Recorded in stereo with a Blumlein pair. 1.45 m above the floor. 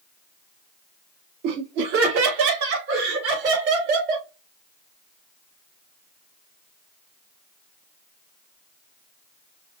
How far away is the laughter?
About 1.4 m.